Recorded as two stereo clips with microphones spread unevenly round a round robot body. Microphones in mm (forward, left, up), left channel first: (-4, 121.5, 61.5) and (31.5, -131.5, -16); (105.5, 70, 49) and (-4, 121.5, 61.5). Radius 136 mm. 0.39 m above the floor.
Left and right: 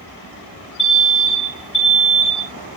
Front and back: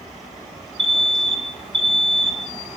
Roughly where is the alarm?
Behind left.